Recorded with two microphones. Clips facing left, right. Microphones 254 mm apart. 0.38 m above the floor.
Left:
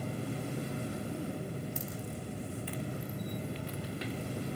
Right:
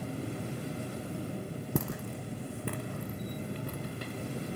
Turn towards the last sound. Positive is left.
turn(degrees=-50)  # may be behind; listen again after turning